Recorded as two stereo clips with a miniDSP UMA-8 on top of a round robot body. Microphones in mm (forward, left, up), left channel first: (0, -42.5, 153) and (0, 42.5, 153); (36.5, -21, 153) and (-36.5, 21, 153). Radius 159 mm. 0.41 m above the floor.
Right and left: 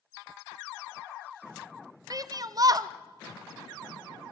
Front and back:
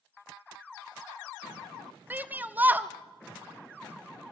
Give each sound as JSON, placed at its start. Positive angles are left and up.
{"t": 2.1, "sound": "a shout", "azimuth_deg": 90, "distance_m": 1.2}